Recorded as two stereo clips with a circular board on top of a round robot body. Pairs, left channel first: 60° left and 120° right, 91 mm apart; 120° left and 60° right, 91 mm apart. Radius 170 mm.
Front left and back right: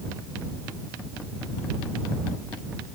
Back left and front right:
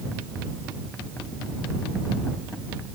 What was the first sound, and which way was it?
Only background noise.